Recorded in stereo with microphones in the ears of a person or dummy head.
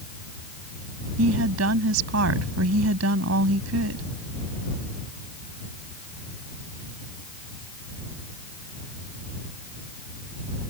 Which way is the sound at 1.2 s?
90° right.